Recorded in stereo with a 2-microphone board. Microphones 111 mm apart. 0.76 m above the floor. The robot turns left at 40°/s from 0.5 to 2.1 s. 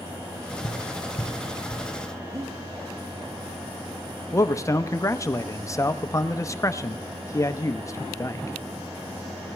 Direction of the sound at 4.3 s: 30° left (ahead or behind).